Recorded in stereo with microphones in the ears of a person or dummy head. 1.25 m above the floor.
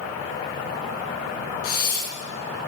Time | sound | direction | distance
1.6 | breathing | 60° left (ahead or behind) | 4 m